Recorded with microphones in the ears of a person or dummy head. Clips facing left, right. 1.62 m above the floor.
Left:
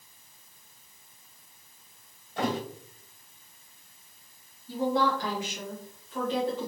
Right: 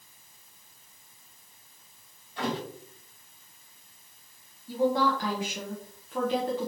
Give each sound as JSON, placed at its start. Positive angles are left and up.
{"t": 2.4, "sound": "a thud", "side_deg": 40, "distance_m": 1.6}
{"t": 4.7, "sound": "a woman speaking", "side_deg": -45, "distance_m": 0.9}